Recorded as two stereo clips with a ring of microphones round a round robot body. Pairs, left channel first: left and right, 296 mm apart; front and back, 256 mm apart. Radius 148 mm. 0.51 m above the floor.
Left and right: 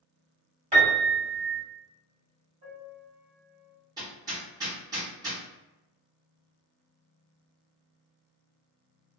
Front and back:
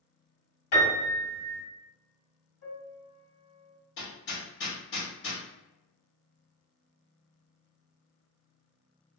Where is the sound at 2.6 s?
25° right, 1.6 m.